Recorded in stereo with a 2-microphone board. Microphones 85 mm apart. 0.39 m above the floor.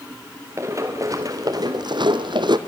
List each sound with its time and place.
0.6 s running footsteps: 35° right (ahead or behind), 2 m; by 2.6 s 60° right (ahead or behind), 0.9 m